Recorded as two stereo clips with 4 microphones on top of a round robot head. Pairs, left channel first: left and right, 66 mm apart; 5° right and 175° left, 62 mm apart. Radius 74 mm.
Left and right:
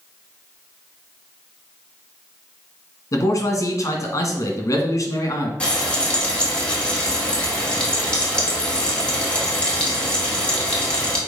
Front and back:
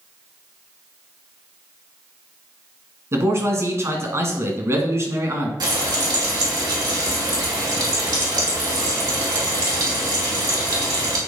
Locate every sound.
3.1 s a man speaking: 130° left, 2.0 m
5.6 s frying: 165° left, 2 m